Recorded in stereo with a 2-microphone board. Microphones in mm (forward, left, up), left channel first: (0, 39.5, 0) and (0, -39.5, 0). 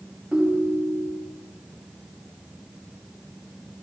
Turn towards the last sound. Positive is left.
turn(degrees=-15)  # may be behind; listen again after turning